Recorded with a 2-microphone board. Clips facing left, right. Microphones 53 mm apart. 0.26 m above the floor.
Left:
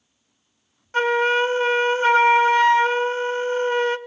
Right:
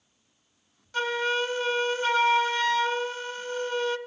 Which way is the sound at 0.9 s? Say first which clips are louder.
Left 8 dB; 40° left (ahead or behind).